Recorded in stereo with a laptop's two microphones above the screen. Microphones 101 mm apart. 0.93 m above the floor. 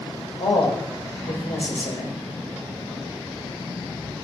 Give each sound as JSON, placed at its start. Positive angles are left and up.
{"t": 0.4, "sound": "a man speaking", "side_deg": 85, "distance_m": 3.5}